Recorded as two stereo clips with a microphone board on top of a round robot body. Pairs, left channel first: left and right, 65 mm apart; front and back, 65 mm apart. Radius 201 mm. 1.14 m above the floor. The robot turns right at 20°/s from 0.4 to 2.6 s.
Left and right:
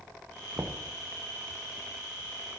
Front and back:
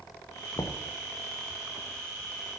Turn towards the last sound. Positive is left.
turn(degrees=5)